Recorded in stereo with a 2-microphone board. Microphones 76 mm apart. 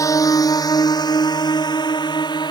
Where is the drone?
45° left (ahead or behind); by 2.5 s 75° left (ahead or behind).